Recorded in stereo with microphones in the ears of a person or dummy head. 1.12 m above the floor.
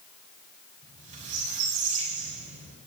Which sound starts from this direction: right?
A squeak, at 0.8 s.